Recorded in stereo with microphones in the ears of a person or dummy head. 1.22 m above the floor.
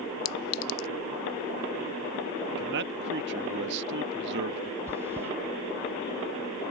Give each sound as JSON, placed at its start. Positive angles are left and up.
{"t": 0.2, "sound": "a clink", "side_deg": 80}
{"t": 2.6, "sound": "a man speaking", "side_deg": -60}
{"t": 4.9, "sound": "chewing", "side_deg": -15}